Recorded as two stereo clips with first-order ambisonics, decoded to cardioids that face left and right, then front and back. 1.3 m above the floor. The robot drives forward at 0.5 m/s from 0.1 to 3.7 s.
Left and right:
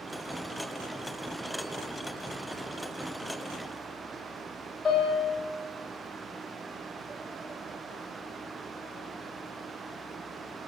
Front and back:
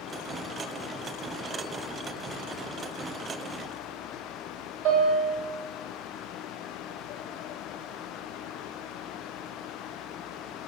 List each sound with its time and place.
4.8 s a piano: 160° left, 2 m